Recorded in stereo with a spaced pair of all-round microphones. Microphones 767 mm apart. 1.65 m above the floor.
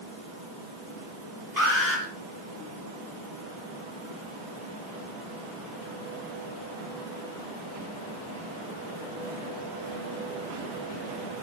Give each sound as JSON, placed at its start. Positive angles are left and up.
{"t": 1.6, "sound": "an alarm", "side_deg": -25, "distance_m": 5.0}